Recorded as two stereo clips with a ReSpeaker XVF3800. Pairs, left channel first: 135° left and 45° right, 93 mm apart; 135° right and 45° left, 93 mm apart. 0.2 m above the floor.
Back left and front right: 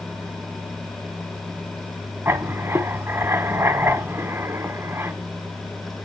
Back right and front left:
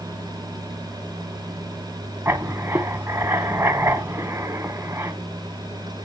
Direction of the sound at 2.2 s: 5° right.